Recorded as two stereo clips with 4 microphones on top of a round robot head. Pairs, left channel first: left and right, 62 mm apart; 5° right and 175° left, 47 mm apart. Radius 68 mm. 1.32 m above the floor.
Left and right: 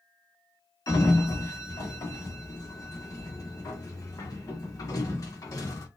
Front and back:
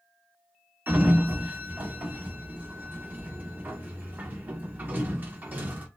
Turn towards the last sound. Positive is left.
turn(degrees=125)